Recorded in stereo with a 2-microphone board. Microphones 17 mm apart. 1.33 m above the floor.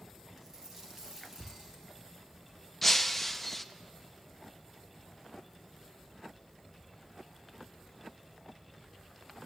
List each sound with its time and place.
0.4 s a dropped coin: 30° right (ahead or behind), 4 m
2.8 s breaking glass: 5° left (ahead or behind), 0.7 m